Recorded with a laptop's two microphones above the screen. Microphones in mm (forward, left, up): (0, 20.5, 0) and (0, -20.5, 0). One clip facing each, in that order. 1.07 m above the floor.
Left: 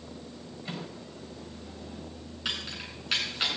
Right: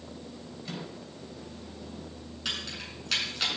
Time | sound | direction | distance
0.7 | a microwave | 25° left (ahead or behind) | 4.5 m
2.5 | keys jangling | 15° left (ahead or behind) | 8 m